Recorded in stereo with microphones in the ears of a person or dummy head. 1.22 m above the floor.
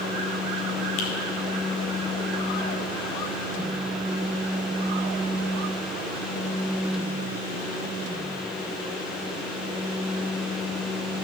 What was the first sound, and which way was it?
A finger snap, 80° left.